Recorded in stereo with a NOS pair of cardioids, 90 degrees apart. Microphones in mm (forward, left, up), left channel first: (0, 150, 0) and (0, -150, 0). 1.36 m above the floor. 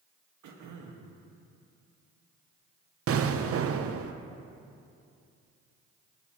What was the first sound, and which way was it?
Throat clearing, 70° right.